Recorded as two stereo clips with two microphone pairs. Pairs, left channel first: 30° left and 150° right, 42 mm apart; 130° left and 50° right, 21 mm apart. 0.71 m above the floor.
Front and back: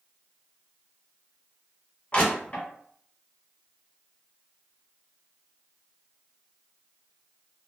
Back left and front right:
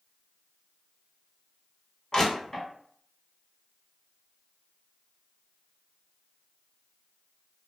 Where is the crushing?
75° left, 1.3 m.